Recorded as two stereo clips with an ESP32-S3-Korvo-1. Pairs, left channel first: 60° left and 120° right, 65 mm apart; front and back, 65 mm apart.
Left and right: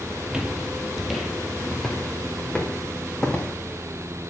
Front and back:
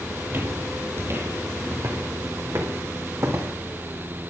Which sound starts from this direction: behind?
Footsteps, at 0.3 s.